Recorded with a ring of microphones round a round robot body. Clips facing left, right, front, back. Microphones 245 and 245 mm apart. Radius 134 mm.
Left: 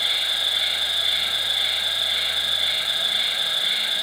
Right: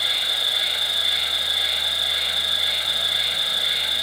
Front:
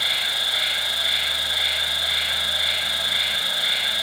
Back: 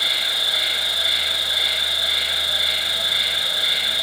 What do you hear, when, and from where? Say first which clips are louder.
0.0 s an insect: right 1 dB, back 2 dB; 130° right, 1.3 m